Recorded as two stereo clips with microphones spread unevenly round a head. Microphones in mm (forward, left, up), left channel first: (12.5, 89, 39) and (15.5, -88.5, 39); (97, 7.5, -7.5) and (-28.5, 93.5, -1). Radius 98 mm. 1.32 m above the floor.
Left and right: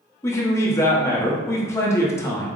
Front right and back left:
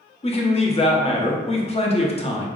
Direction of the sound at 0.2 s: 15° left.